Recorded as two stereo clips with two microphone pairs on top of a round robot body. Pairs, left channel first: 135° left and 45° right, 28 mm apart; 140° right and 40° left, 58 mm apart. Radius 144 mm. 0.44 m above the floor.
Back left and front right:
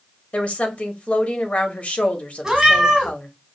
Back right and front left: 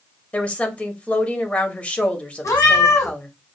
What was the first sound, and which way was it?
A woman speaking, 165° left.